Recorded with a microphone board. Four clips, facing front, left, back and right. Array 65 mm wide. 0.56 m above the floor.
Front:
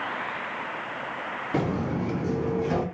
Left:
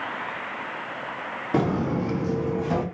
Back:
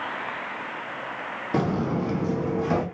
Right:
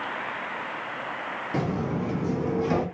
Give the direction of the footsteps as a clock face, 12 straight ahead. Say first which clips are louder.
Left 5 dB, back 3 dB; 8 o'clock.